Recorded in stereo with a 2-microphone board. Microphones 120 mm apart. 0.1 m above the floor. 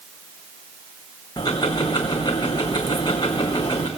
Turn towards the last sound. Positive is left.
turn(degrees=35)  # may be behind; listen again after turning